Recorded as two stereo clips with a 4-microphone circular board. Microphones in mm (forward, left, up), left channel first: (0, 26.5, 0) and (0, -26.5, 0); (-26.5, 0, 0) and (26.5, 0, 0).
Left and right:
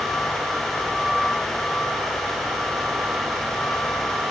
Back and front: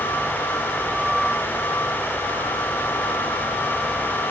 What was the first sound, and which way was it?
Only background noise.